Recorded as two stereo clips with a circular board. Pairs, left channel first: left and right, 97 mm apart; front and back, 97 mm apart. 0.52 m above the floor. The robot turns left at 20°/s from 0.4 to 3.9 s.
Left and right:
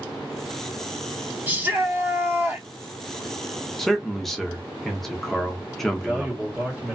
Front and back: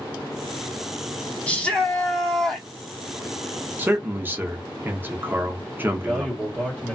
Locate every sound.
1.5 s a shout: 55° right, 1.1 m; by 2.7 s 80° right, 1.1 m
3.8 s a man speaking: straight behind, 0.7 m; by 6.3 s 175° left, 0.7 m
5.9 s a man speaking: 40° right, 1.3 m